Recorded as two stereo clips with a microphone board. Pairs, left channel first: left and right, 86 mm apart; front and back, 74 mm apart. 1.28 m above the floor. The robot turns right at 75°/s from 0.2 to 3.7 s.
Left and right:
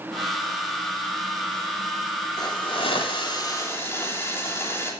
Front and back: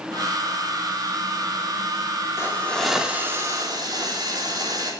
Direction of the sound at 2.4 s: 55° left.